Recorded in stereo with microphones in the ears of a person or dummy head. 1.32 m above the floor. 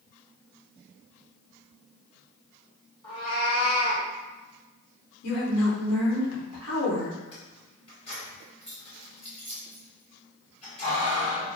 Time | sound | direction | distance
3.0 | a cat meowing | 20° left (ahead or behind) | 1.2 m
5.2 | a woman speaking | 85° left | 1.0 m
7.3 | keys jangling | 25° left (ahead or behind) | 1.2 m